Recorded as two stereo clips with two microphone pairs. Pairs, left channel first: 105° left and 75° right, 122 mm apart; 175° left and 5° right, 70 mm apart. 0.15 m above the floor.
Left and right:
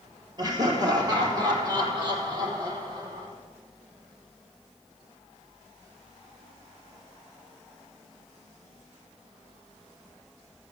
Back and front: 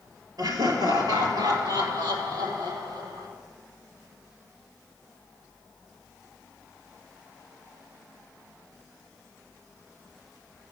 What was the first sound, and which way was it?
Laughter, 20° right.